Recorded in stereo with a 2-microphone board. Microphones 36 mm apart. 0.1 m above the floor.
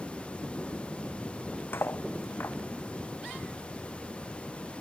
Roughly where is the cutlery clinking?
Left.